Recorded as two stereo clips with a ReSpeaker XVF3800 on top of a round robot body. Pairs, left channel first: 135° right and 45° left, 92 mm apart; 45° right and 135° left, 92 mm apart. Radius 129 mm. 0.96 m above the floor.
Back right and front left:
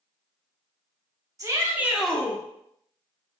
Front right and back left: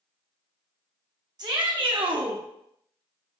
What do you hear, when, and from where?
1.4 s a shout: 95° left, 1.4 m; by 2.4 s 170° left, 1.0 m